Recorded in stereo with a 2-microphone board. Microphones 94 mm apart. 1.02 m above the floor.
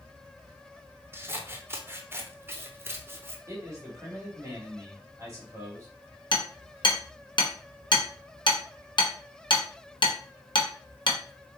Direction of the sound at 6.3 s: 55° left (ahead or behind).